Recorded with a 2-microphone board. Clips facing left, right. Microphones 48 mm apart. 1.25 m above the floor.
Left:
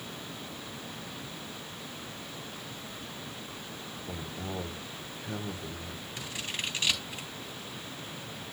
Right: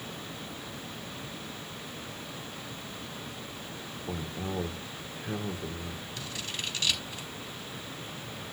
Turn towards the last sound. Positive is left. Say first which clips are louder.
# left 3 dB
turn(degrees=25)  # may be behind; listen again after turning